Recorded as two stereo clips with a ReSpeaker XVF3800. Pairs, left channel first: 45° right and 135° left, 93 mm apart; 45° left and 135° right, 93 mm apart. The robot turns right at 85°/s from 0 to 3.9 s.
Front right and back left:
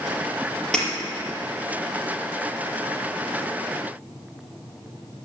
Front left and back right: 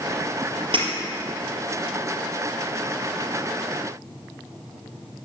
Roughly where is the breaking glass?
Behind right.